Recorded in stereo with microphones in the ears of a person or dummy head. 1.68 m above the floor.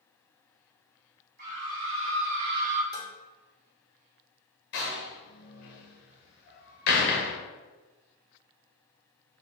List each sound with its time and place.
1.4 s a scream: 50° right (ahead or behind), 1.3 m; by 2.8 s 35° right (ahead or behind), 0.8 m
2.9 s dishes clattering: 20° left (ahead or behind), 1.1 m
4.7 s a door slam: 40° left (ahead or behind), 0.8 m